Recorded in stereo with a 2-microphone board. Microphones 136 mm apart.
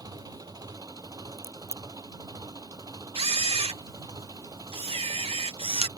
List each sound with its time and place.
0.0 s an engine running: 30° right (ahead or behind)
1.4 s a crack: 55° left (ahead or behind)
3.1 s a camera shutter: 45° right (ahead or behind)